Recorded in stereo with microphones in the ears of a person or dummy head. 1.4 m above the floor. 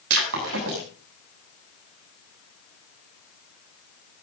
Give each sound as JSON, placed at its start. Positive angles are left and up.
{"t": 0.1, "sound": "breaking glass", "side_deg": -60, "distance_m": 7.0}